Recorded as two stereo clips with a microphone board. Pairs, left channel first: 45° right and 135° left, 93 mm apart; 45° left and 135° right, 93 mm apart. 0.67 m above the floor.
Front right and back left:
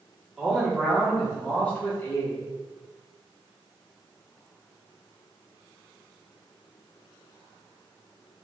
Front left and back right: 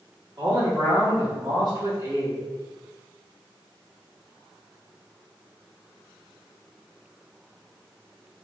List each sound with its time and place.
0.4 s a man speaking: 140° right, 1.8 m; by 2.4 s 90° right, 1.6 m